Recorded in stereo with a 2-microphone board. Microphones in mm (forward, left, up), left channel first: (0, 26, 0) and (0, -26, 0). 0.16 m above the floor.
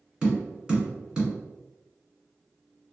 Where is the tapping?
15° right (ahead or behind), 1.6 m.